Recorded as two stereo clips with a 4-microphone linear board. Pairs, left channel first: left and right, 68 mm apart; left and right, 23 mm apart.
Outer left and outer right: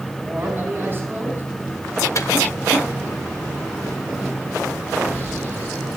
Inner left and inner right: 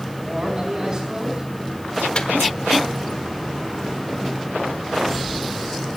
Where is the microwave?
50° left (ahead or behind), 1.0 m.